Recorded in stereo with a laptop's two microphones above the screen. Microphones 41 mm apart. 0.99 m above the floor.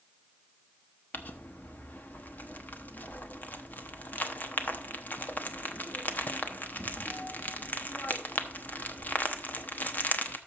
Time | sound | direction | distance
1.1 | crumpling | 45° left (ahead or behind) | 1.0 m